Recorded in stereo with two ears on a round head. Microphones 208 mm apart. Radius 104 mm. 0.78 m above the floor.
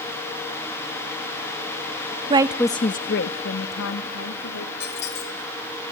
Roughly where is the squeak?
Left.